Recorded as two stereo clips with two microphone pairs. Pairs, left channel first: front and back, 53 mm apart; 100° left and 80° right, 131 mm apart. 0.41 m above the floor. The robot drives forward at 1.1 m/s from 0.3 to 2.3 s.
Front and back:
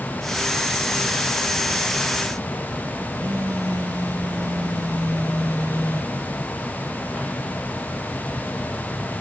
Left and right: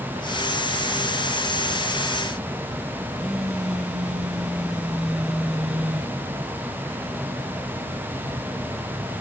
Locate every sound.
3.2 s a phone buzzing: 165° right, 2 m